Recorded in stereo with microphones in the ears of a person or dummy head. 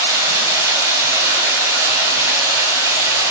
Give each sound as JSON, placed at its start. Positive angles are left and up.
{"t": 0.0, "sound": "running water", "side_deg": -15, "distance_m": 5.5}